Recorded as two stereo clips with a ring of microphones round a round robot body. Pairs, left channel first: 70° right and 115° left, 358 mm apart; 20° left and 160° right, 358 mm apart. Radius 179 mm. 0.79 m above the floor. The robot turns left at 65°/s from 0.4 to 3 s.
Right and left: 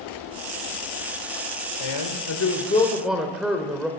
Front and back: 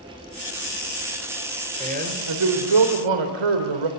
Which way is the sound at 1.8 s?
80° right.